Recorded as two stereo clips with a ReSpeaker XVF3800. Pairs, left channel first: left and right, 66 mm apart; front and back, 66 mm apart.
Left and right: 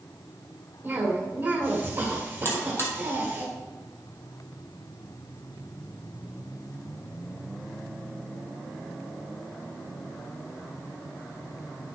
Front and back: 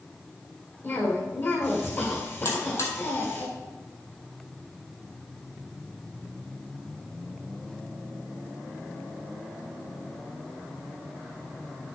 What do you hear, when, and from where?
0.8 s a cough: 35° right, 1.9 m
2.5 s a buzzer: 40° left, 2.5 m